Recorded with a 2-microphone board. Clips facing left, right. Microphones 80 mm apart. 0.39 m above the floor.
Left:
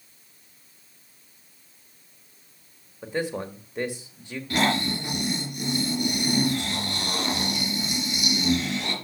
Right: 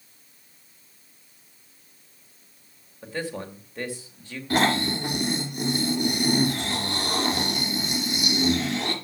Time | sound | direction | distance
3.0 | a man speaking | 20° left (ahead or behind) | 1.8 m
4.5 | snoring | 35° right (ahead or behind) | 2.5 m